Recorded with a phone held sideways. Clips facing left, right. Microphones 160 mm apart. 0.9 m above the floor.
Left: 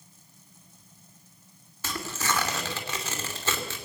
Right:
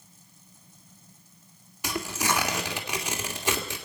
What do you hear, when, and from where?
1.8 s tearing paper: 15° right (ahead or behind), 2.5 m